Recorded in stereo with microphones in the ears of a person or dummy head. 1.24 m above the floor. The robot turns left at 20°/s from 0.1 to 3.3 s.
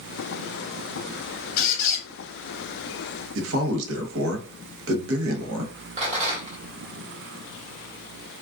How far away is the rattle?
About 1.2 m.